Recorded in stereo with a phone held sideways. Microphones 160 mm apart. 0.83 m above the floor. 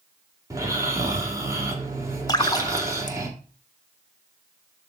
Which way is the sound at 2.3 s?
25° left (ahead or behind).